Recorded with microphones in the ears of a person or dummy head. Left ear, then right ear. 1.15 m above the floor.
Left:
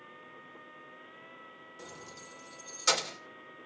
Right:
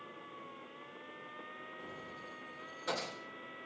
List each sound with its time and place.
1.8 s keys jangling: 75° left (ahead or behind), 2.5 m